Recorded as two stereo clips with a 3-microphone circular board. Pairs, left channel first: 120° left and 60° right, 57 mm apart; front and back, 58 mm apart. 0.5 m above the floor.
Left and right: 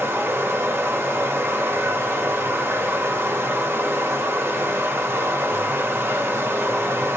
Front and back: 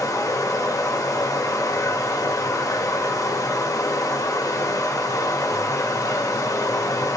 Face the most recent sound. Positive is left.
turn(degrees=-10)